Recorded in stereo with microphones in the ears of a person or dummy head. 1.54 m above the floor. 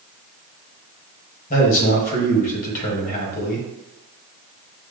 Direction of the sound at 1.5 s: 40° left (ahead or behind).